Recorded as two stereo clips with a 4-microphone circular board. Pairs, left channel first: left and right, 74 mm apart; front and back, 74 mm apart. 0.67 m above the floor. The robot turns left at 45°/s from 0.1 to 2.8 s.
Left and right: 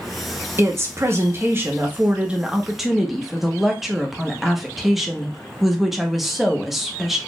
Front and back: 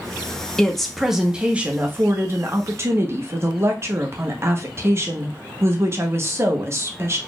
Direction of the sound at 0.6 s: 75° right.